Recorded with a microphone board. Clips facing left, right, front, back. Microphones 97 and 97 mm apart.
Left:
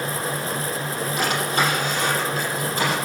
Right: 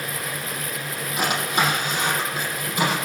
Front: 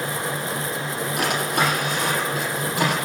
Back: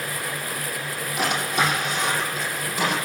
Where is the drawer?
15° right, 9.5 m.